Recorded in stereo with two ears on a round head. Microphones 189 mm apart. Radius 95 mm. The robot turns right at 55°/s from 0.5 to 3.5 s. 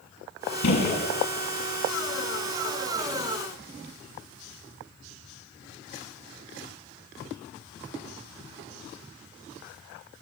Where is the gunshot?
80° left, 6.5 m.